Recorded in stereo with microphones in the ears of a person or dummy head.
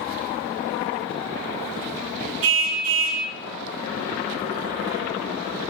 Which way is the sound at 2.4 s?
85° right.